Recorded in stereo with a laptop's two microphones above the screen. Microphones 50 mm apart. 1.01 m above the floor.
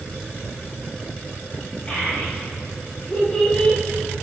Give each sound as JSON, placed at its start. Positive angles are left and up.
{"t": 1.9, "sound": "a child speaking", "side_deg": 25, "distance_m": 4.0}